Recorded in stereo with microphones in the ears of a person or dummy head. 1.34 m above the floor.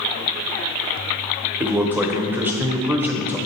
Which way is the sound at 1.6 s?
10° right (ahead or behind).